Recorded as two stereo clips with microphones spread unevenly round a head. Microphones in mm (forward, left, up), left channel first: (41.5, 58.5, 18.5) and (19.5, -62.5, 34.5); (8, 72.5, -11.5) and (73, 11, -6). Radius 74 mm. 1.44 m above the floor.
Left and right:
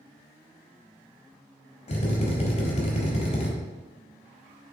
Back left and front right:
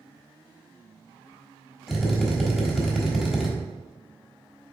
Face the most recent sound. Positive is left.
turn(degrees=50)